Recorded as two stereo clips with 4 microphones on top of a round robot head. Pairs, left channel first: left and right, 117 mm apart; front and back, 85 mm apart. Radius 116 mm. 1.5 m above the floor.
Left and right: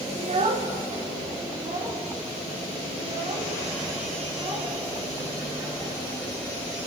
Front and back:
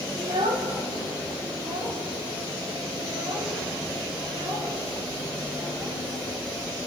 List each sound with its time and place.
0.2 s a child speaking: 125° right, 2 m; by 5.9 s 140° right, 9.5 m